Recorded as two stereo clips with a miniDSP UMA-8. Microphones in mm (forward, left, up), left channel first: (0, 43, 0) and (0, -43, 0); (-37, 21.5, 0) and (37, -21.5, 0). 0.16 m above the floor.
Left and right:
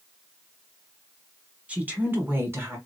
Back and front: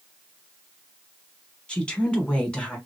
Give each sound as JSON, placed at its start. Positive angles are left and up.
{"t": 1.7, "sound": "a woman speaking", "azimuth_deg": -145, "distance_m": 1.1}